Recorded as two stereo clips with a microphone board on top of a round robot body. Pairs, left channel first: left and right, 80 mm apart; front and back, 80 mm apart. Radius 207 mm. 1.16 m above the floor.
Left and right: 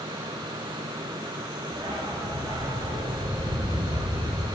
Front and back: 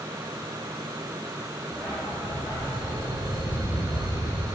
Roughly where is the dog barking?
Ahead right.